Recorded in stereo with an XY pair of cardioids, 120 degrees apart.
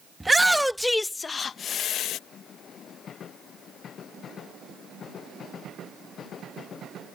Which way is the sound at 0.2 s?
10° right.